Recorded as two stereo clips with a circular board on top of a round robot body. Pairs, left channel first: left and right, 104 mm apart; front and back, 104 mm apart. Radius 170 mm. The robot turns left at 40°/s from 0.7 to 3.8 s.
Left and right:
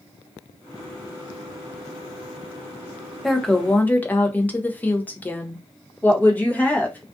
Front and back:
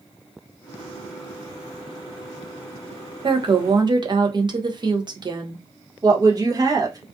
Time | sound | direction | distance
3.2 | a woman speaking | straight behind | 0.8 m
6.0 | a woman speaking | 160° left | 1.0 m